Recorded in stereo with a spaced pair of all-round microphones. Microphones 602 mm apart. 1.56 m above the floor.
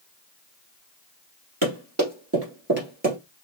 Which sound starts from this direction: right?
Running footsteps, at 1.6 s.